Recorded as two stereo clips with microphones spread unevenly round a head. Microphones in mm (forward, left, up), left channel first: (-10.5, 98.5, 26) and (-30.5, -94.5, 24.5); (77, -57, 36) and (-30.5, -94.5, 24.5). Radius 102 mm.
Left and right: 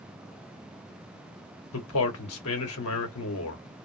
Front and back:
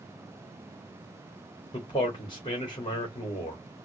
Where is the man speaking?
85° left, 2 m.